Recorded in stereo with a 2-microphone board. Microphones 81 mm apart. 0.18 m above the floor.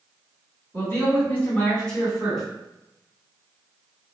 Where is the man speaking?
35° left (ahead or behind), 1.8 m; by 2.5 s centre (ahead or behind), 1.6 m.